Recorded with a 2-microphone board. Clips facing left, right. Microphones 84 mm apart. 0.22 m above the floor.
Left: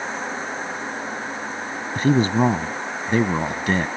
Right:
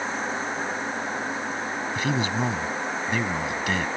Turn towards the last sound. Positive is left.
turn(degrees=40)  # may be behind; listen again after turning